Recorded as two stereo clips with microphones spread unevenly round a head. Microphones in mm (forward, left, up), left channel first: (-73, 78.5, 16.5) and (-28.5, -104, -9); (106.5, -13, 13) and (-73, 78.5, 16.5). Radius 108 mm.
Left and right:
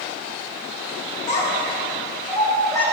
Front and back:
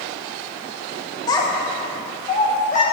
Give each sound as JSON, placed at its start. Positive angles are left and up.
{"t": 1.3, "sound": "a child speaking", "azimuth_deg": 45, "distance_m": 1.4}